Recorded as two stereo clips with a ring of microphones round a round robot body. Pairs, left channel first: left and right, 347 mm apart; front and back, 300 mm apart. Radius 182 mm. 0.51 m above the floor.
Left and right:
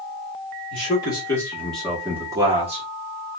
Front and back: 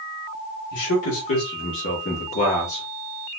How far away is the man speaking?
About 1.6 m.